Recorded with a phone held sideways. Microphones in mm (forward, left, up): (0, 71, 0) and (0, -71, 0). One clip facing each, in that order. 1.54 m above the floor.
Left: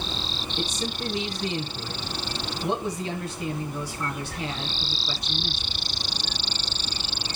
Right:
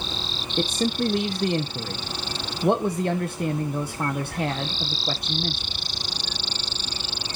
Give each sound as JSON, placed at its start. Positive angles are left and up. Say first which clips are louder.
{"t": 0.6, "sound": "a man speaking", "louder": "right 8 dB", "side_deg": -60, "distance_m": 0.8}